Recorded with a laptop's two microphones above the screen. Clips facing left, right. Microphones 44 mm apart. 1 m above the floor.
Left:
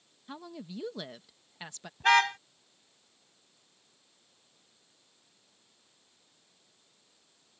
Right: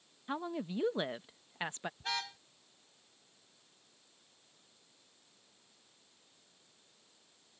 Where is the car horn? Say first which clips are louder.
Left 18 dB; 75° left (ahead or behind).